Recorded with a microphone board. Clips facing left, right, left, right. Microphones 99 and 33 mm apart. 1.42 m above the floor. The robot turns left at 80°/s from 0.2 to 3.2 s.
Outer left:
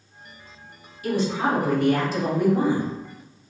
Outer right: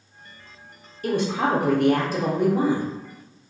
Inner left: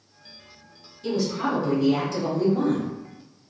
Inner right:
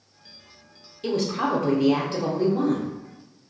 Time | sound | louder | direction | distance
1.0 | a woman speaking | outer right 1 dB, inner right 1 dB | 45° right | 0.6 m